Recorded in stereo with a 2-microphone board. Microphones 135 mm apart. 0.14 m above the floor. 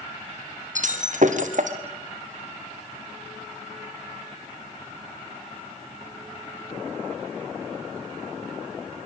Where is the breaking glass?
65° right (ahead or behind), 3 m.